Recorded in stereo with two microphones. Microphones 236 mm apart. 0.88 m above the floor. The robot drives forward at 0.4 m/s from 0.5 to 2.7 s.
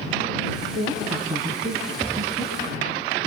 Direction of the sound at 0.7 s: 25° right (ahead or behind).